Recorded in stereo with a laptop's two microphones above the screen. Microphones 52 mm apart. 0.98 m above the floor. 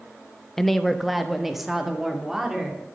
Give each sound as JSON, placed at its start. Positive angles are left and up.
{"t": 0.6, "sound": "a woman speaking", "side_deg": 5, "distance_m": 0.7}